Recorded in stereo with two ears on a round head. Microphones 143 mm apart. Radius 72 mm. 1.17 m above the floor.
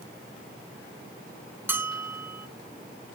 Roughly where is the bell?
Centre.